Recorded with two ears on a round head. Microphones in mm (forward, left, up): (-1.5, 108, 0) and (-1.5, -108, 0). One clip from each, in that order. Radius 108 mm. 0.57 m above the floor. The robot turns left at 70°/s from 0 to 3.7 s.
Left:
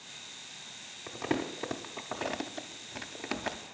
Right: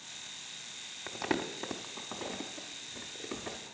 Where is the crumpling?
35° right (ahead or behind), 0.5 m; by 3.6 s 40° left (ahead or behind), 0.5 m.